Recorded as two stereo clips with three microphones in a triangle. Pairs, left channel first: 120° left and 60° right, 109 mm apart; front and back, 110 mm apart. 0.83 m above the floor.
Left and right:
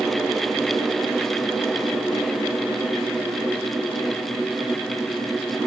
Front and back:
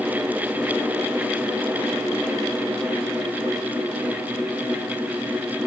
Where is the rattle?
I don't hear a rattle.